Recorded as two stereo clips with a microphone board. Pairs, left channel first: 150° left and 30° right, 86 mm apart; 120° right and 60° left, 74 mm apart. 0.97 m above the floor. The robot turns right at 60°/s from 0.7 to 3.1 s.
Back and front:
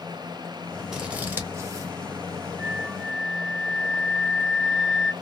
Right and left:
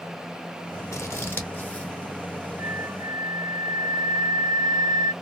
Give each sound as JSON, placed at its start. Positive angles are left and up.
{"t": 0.9, "sound": "scissors", "azimuth_deg": -110, "distance_m": 0.8}
{"t": 2.6, "sound": "a flute", "azimuth_deg": 30, "distance_m": 0.6}